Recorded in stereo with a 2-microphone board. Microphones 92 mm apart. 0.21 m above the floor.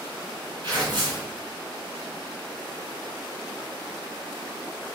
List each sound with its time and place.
0.6 s tearing paper: 50° right (ahead or behind), 1.9 m